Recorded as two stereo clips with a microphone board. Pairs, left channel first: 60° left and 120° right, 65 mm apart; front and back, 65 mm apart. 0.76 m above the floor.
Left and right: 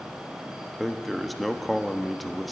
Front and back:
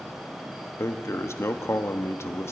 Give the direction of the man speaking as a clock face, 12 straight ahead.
1 o'clock.